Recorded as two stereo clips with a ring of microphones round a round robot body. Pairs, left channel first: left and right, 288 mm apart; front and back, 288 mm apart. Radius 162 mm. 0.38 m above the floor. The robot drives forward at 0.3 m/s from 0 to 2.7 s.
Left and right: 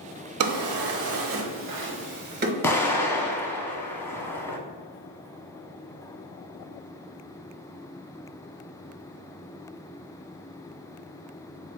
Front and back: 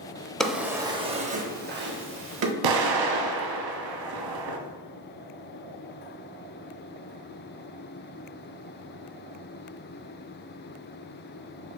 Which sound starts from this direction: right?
A drawer, at 0.4 s.